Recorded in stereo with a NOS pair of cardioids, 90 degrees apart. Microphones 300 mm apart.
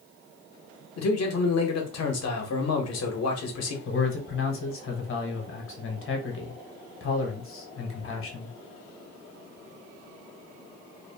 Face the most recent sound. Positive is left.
turn(degrees=45)